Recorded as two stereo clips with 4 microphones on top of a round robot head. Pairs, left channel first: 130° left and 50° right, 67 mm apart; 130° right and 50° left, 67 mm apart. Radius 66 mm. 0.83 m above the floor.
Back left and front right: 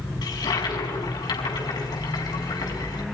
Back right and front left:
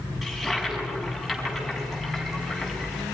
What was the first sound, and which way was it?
A toilet flushing, 140° left.